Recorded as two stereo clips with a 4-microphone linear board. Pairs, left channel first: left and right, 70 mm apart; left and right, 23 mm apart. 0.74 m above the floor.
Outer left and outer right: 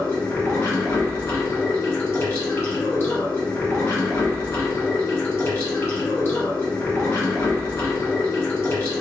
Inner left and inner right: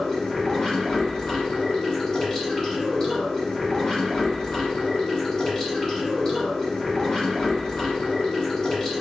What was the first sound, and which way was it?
Running water, 35° left (ahead or behind).